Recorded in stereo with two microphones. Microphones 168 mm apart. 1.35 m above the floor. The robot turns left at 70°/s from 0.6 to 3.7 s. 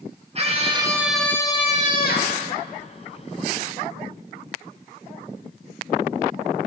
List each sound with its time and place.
0.3 s a scream: 140° right, 2 m; by 2.4 s 95° left, 2 m